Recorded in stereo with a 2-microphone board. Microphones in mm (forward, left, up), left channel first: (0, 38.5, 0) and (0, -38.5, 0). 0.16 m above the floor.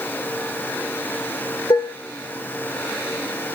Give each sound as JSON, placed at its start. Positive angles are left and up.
{"t": 1.7, "sound": "dishes clattering", "side_deg": 55, "distance_m": 1.6}